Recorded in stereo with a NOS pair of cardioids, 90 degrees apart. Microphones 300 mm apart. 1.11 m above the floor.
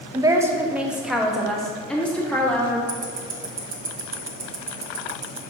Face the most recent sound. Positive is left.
turn(degrees=-45)